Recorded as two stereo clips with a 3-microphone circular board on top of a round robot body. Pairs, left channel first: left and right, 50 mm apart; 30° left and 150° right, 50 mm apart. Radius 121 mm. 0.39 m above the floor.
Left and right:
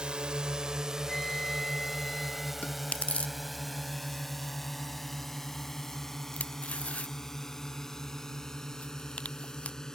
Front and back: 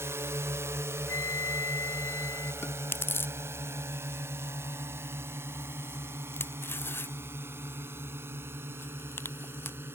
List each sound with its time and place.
0.0 s a drone: 160° right; by 9.9 s 170° left
1.1 s a flute: 10° left
2.6 s chewing: 35° left